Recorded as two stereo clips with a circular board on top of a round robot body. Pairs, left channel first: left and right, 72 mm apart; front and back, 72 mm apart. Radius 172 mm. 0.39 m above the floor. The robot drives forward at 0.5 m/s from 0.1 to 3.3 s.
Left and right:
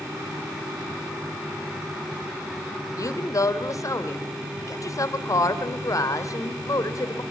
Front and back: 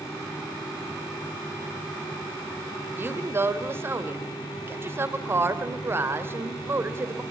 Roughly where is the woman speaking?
Behind left.